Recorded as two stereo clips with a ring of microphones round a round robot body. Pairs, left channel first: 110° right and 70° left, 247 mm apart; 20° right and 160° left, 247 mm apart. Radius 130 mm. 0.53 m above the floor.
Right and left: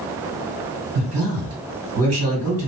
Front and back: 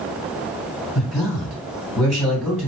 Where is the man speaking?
65° left, 2.5 m.